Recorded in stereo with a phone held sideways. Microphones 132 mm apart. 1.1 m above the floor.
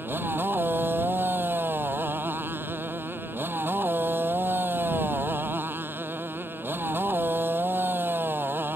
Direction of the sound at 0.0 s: 15° right (ahead or behind).